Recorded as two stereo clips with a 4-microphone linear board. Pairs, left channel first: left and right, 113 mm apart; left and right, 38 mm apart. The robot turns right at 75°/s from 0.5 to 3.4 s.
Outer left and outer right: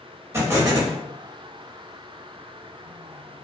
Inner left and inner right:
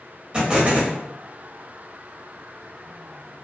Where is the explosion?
155° right, 0.9 m; by 1.0 s 120° right, 0.9 m.